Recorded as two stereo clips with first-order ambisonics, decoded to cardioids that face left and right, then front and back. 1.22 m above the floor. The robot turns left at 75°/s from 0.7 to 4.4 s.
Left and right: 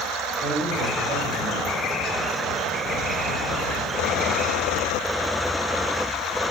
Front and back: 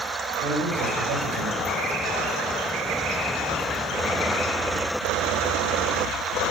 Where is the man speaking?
140° right, 5 m; by 1.7 s 145° left, 5 m.